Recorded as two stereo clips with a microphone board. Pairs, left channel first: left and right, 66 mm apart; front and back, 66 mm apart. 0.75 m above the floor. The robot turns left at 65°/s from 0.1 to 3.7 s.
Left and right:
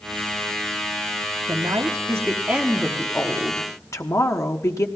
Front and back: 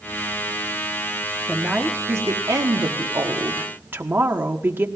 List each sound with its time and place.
1.5 s a woman speaking: 90° right, 1.2 m; by 4.9 s 125° left, 1.2 m